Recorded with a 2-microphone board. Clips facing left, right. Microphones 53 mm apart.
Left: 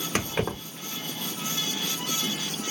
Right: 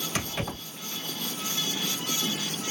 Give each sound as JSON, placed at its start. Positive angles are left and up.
{"t": 0.1, "sound": "keys jangling", "side_deg": 50, "distance_m": 1.1}